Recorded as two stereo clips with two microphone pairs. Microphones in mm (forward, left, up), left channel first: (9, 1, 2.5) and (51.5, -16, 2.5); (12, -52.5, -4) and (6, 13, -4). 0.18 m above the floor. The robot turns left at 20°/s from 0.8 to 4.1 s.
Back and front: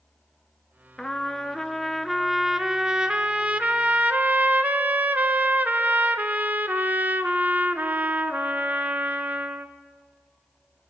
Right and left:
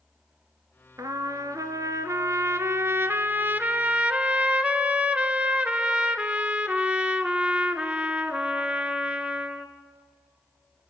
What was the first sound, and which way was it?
A trumpet, 85° left.